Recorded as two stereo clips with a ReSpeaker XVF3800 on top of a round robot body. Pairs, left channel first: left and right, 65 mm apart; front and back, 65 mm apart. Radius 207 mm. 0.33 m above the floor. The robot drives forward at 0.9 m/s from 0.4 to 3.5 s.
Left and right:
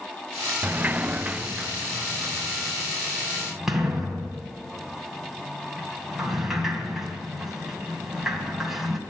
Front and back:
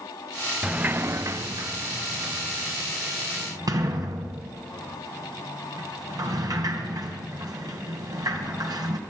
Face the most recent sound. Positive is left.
turn(degrees=-175)